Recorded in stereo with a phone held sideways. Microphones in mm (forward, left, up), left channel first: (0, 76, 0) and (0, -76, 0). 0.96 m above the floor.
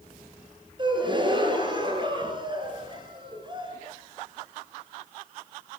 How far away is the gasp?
About 4.5 m.